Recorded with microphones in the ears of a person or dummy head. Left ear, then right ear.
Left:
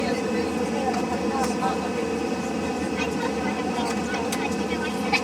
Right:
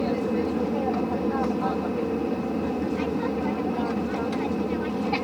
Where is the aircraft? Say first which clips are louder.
Left 1 dB; 55° left (ahead or behind).